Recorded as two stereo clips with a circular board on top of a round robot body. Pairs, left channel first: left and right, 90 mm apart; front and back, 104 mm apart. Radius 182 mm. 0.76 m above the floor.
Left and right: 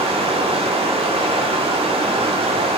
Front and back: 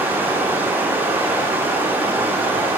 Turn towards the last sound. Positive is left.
turn(degrees=-105)